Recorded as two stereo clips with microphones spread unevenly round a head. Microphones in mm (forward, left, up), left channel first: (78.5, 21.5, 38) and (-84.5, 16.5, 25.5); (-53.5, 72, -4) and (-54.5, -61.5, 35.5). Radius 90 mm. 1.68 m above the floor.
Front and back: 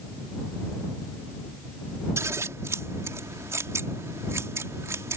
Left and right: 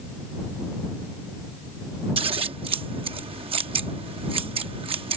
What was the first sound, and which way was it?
Scissors, 100° right.